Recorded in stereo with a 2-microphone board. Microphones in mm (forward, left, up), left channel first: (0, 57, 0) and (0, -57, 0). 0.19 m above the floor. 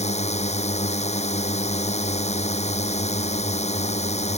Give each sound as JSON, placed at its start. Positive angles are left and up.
{"t": 0.0, "sound": "a drone", "side_deg": 80}